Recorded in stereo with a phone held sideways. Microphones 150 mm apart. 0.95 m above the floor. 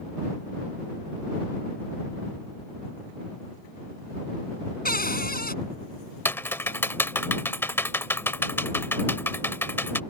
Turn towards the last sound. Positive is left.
turn(degrees=15)  # may be behind; listen again after turning